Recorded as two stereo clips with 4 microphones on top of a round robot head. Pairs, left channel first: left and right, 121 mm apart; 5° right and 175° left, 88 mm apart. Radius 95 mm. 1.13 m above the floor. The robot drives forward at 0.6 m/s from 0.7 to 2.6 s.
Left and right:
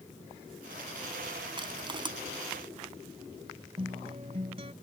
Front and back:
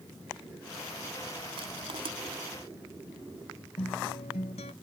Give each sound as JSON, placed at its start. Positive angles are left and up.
{"t": 1.6, "sound": "crushing", "azimuth_deg": -140}
{"t": 3.8, "sound": "a guitar", "azimuth_deg": -35}